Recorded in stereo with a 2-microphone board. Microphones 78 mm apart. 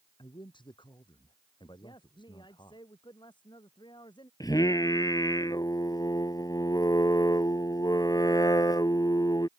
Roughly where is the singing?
Left.